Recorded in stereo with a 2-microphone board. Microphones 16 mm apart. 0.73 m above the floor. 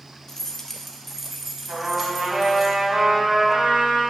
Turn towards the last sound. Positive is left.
turn(degrees=-90)